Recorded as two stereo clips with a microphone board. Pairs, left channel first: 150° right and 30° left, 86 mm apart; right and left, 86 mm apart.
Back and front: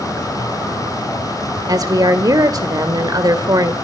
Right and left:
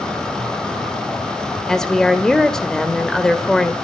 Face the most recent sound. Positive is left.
turn(degrees=-10)